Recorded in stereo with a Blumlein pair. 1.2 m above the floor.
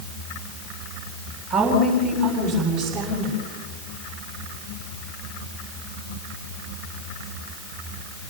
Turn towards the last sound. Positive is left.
turn(degrees=-45)